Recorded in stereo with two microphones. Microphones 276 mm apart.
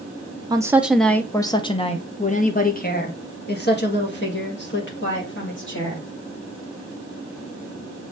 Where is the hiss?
No hiss in this recording.